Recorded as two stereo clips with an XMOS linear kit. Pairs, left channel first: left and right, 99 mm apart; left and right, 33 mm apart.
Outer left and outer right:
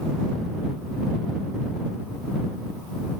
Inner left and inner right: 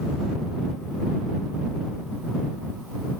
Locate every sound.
Only background noise.